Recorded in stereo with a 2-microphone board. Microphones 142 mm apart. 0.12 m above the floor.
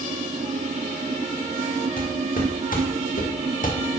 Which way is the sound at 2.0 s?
70° left (ahead or behind).